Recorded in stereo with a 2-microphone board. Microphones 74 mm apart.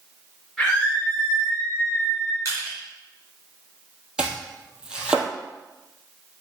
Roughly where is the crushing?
Right.